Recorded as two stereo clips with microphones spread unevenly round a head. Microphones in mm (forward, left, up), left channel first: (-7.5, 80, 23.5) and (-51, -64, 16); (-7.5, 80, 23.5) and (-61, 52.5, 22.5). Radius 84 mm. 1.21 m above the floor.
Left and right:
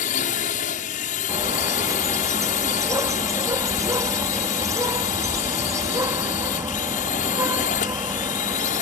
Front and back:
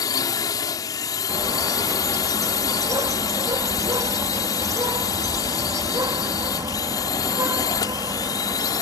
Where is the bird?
175° right.